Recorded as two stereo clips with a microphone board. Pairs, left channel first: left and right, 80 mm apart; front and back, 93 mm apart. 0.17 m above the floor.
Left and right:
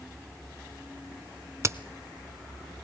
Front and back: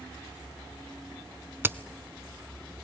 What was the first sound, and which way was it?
A crack, 125° right.